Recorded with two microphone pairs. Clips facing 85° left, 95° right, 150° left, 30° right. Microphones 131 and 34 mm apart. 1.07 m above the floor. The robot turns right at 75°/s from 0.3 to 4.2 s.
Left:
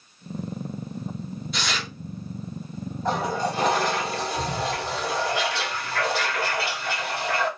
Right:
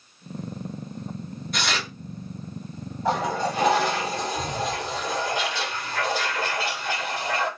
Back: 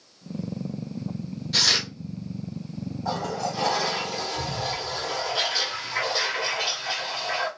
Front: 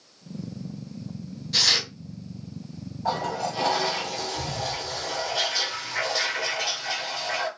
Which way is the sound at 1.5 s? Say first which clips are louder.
Right 3 dB, even; 130° right.